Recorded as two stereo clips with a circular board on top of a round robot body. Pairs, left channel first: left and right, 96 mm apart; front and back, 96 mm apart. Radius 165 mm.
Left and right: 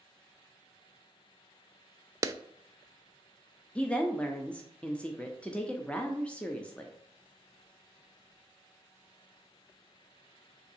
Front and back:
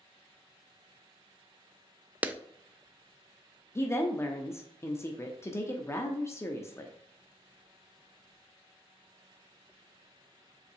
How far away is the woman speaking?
About 0.7 m.